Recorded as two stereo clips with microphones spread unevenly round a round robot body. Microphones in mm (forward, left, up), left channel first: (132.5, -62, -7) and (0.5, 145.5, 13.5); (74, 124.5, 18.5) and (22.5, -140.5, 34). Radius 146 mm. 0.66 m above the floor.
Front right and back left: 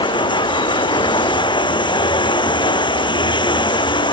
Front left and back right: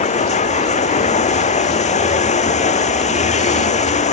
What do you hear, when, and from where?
0.0 s running water: 15° left